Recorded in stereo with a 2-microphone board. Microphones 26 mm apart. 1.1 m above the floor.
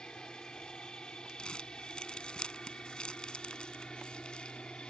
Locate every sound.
0.0 s an aircraft: 35° left (ahead or behind); by 4.9 s 40° left (ahead or behind)
1.4 s crumpling: 40° left (ahead or behind)